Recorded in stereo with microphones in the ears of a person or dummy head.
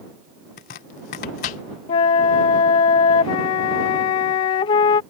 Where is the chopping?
35° left (ahead or behind).